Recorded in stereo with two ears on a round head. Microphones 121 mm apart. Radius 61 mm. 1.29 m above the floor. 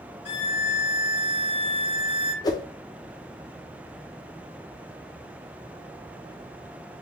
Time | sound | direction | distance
0.2 | a violin | 35° left (ahead or behind) | 2.5 m
2.4 | a whoosh | 30° left (ahead or behind) | 0.6 m